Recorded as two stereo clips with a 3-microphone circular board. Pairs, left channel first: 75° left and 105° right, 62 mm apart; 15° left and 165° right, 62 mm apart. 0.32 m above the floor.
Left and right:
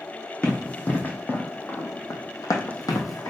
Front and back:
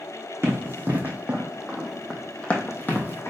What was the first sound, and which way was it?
Running footsteps, 145° left.